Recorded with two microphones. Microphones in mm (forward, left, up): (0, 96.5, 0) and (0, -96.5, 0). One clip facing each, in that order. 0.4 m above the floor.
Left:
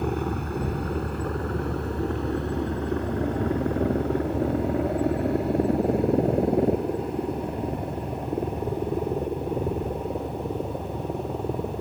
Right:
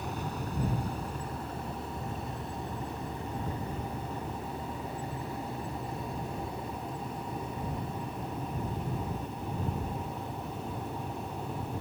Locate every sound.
0.0 s a helicopter: 60° left (ahead or behind)